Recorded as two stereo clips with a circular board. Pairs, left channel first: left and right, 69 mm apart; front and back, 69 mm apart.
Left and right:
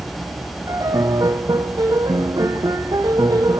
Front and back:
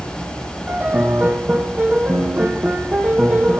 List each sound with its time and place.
0.7 s a piano: 115° right, 1.9 m